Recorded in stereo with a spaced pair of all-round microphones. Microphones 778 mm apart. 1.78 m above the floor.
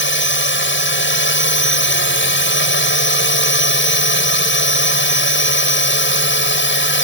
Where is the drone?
15° left (ahead or behind).